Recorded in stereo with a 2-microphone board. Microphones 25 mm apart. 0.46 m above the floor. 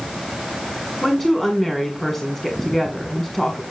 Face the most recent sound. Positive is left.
turn(degrees=20)  # may be behind; listen again after turning